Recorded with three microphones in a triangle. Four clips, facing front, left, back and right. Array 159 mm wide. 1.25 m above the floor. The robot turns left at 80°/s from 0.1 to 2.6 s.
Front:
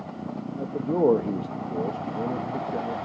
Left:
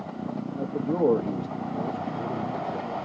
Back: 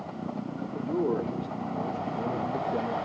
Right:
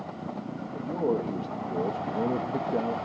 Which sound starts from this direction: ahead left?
A man speaking, at 0.6 s.